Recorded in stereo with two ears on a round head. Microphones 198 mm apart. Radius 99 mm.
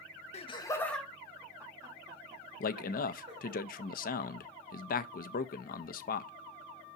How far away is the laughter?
About 1.1 m.